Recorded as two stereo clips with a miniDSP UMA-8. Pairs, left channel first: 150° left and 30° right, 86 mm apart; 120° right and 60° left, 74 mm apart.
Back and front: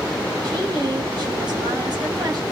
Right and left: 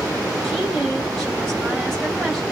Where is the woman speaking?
35° right, 1.5 m.